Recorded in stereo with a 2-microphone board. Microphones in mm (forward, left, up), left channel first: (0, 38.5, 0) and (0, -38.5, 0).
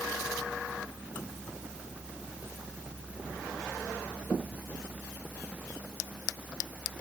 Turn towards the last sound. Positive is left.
No sound to turn to.